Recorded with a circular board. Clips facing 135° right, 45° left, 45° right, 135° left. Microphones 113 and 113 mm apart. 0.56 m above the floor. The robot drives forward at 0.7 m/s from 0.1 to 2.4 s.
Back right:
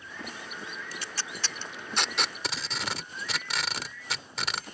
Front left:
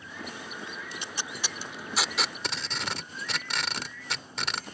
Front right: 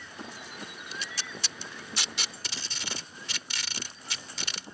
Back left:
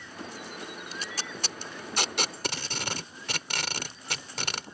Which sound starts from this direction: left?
Tape being pulled, at 0.9 s.